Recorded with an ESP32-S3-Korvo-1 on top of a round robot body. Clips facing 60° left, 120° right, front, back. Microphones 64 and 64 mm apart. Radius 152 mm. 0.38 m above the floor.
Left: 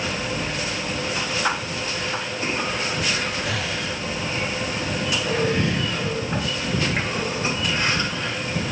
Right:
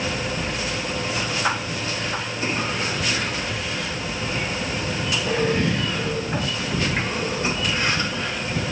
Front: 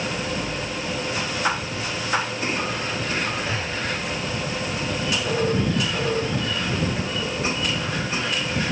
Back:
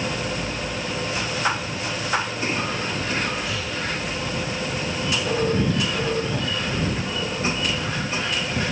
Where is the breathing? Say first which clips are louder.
Left 1 dB, front 1 dB; 60° left.